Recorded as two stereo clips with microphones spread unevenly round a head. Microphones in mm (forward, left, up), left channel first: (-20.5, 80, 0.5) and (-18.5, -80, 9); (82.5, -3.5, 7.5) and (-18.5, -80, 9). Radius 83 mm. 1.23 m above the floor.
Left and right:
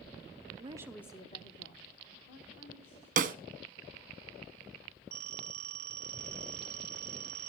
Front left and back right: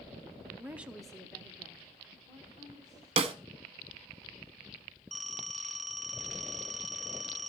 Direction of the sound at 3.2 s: 110° right.